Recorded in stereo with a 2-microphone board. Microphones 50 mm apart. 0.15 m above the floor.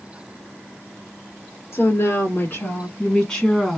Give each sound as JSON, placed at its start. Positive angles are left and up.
{"t": 1.7, "sound": "a woman speaking", "side_deg": 50, "distance_m": 1.9}